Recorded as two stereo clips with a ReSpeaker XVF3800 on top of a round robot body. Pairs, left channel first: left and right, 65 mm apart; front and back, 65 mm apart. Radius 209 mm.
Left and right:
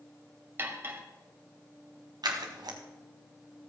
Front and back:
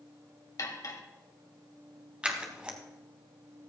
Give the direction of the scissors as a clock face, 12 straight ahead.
3 o'clock.